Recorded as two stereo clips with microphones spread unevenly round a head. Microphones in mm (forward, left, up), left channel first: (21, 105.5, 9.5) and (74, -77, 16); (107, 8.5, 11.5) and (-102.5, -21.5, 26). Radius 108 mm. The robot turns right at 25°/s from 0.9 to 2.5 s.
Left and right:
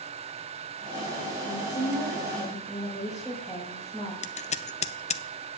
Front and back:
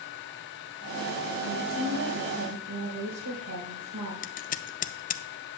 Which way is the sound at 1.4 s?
165° left.